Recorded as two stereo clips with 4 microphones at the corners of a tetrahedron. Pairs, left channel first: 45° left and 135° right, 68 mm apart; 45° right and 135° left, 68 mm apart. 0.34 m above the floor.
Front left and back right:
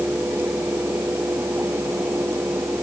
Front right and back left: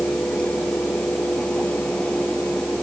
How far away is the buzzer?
No buzzer in this recording.